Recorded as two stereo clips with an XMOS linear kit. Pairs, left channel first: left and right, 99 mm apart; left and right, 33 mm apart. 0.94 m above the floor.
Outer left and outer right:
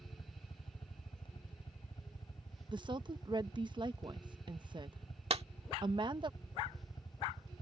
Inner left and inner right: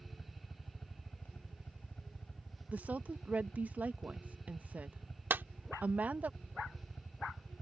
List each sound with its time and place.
0.0 s a helicopter: 55° left (ahead or behind); by 7.6 s 45° left (ahead or behind)
2.7 s a woman speaking: 45° right (ahead or behind)
5.3 s a clap: 70° right (ahead or behind)